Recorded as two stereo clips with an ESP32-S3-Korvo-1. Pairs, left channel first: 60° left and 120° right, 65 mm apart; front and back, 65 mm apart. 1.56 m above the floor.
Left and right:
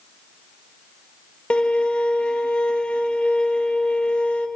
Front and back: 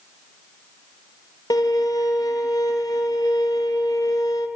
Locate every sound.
1.5 s a violin: 15° right, 2.5 m